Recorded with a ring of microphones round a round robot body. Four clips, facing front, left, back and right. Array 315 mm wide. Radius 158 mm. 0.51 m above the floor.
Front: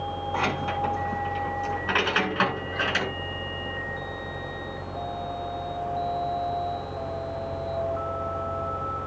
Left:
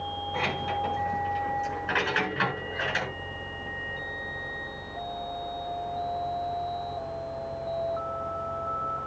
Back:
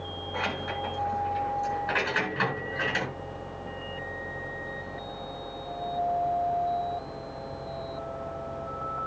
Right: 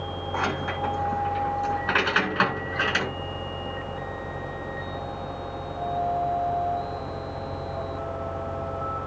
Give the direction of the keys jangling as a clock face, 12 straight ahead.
1 o'clock.